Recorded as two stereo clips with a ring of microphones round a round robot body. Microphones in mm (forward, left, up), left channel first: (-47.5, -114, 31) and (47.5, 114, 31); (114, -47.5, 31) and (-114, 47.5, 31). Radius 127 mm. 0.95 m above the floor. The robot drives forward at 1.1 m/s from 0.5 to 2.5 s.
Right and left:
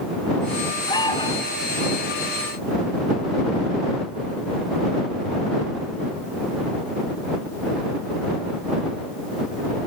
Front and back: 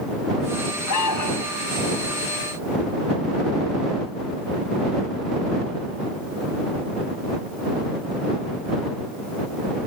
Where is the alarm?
35° right; by 1.6 s 40° right.